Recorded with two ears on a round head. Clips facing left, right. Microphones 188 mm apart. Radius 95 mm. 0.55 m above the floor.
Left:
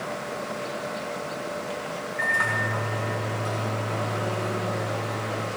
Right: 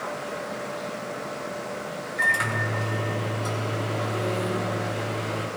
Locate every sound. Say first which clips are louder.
2.2 s a microwave: right 1 dB; 40° right (ahead or behind), 4.5 m